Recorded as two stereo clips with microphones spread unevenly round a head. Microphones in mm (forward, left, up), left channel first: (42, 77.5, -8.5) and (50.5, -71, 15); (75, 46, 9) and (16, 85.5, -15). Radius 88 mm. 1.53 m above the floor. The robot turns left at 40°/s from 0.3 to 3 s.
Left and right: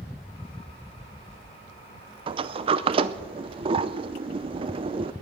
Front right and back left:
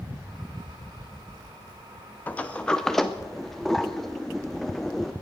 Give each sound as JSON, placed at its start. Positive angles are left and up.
{"t": 2.3, "sound": "a sliding door", "azimuth_deg": -70, "distance_m": 0.5}